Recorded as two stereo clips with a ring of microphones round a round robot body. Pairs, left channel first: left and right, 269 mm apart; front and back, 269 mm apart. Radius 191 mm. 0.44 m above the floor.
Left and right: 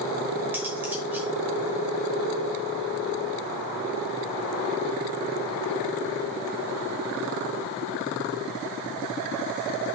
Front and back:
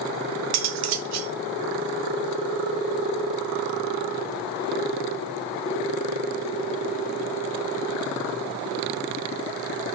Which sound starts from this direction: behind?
Cutlery clinking, at 0.5 s.